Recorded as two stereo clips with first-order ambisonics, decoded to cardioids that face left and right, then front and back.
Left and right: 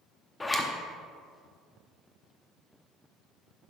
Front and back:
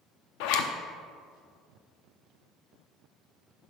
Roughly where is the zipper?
Ahead.